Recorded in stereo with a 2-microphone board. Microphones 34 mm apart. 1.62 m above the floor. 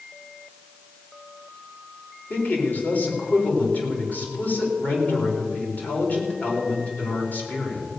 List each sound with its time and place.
2.3 s a man speaking: 60° left (ahead or behind), 4.5 m